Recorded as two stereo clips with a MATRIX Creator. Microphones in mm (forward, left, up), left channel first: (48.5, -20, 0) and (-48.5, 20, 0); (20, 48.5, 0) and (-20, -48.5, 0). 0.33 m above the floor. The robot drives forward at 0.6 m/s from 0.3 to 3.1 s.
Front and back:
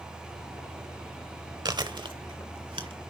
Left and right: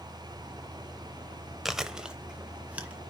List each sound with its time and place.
1.6 s chewing: 160° left, 0.7 m; by 3.0 s 175° left, 1.3 m